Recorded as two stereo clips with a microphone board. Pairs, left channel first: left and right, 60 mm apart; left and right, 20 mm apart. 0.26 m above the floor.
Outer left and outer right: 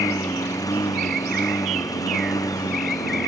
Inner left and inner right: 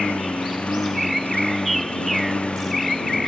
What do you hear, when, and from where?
0.0 s a lawn mower: 70° left (ahead or behind)